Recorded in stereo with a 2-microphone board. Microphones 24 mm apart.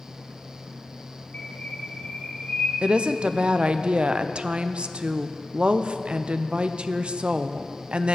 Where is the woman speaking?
40° right (ahead or behind), 0.5 m.